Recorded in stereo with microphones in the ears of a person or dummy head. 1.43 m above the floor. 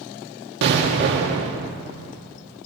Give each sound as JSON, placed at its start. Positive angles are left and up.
{"t": 0.6, "sound": "an explosion", "side_deg": -65, "distance_m": 1.9}